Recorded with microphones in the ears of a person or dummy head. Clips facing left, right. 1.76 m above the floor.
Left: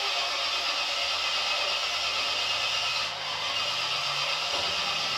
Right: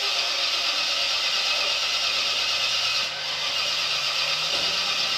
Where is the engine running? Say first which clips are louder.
Even; 30° right (ahead or behind), 1.8 m.